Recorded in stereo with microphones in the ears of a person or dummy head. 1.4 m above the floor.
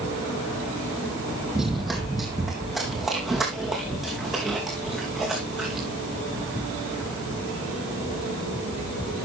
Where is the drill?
No drill in this recording.